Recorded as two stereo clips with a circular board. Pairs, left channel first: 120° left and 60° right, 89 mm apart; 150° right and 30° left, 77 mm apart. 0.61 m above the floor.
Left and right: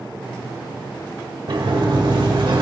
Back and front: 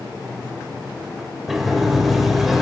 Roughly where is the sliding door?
Ahead right.